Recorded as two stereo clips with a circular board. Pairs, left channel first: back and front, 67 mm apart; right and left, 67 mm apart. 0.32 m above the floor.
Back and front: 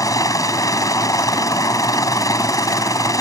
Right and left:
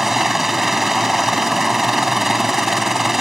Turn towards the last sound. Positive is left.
turn(degrees=175)